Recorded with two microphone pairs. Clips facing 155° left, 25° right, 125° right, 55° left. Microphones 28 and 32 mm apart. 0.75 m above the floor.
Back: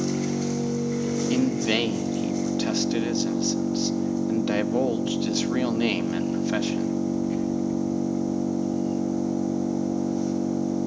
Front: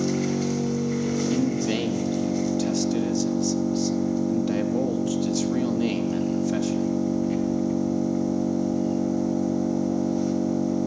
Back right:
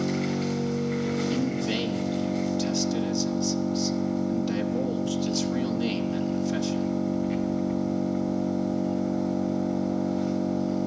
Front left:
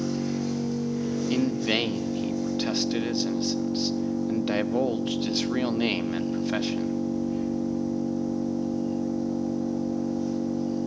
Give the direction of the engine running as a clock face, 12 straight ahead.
3 o'clock.